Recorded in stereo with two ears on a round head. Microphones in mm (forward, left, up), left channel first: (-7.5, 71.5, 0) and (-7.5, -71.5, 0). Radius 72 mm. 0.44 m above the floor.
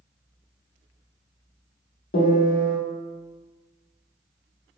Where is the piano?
60° left (ahead or behind), 0.7 m.